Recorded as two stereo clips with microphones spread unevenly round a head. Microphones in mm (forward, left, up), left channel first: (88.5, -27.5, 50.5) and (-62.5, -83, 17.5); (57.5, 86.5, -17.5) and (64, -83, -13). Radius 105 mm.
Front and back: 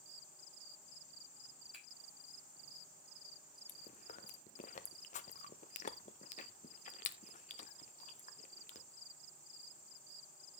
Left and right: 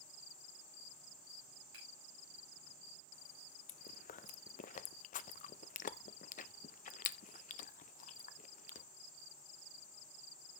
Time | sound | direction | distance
1.7 | a finger snap | 70° right | 7.5 m
3.7 | chewing | 65° left | 0.6 m